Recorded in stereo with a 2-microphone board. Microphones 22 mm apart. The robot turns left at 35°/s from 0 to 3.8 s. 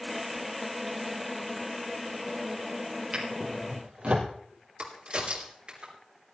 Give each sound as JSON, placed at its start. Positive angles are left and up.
{"t": 3.1, "sound": "a drawer", "side_deg": -55, "distance_m": 3.0}
{"t": 4.8, "sound": "a crack", "side_deg": -55, "distance_m": 3.0}